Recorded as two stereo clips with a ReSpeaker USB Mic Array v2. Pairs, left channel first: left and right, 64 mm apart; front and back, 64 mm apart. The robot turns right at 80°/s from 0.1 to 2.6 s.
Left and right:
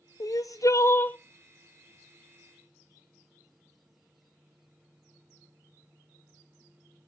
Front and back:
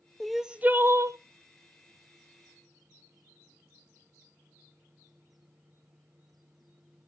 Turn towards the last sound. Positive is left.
turn(degrees=-90)